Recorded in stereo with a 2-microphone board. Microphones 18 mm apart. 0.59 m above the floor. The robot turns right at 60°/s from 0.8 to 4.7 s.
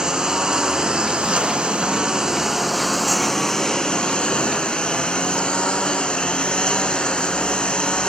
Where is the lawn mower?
135° right; by 8.1 s 100° left.